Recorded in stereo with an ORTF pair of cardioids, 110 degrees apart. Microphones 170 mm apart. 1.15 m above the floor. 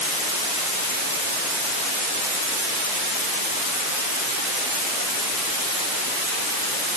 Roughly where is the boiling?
No boiling in this recording.